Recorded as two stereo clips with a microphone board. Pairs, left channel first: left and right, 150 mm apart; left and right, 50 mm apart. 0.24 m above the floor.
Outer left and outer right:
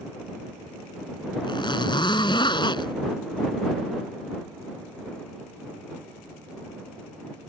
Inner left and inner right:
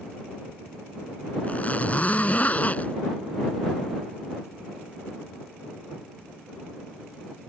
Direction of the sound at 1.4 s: 30° left (ahead or behind).